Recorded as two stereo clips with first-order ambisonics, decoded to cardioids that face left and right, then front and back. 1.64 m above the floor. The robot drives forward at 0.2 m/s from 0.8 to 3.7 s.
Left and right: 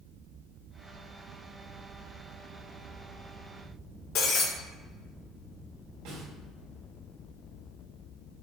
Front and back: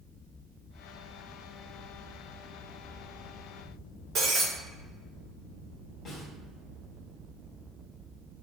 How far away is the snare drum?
About 2 m.